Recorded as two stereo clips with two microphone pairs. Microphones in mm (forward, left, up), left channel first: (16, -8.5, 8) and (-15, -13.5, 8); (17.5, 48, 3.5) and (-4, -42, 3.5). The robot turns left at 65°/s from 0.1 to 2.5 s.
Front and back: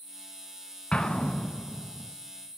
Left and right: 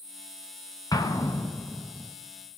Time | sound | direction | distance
0.9 | an explosion | 45° left | 1.0 m